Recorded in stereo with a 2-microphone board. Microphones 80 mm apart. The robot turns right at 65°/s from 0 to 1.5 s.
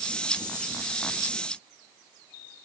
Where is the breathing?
No breathing in this recording.